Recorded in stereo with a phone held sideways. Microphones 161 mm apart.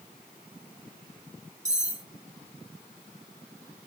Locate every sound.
1.6 s cutlery clinking: 45° right (ahead or behind), 0.7 m